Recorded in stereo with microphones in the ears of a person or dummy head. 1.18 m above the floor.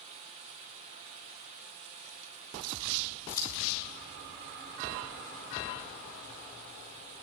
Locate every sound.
3.3 s scissors: 25° left (ahead or behind), 3 m